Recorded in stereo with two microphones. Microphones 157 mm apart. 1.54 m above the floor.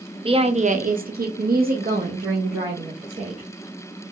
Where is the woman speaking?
35° right (ahead or behind), 0.7 m; by 3.5 s 45° right (ahead or behind), 1.6 m.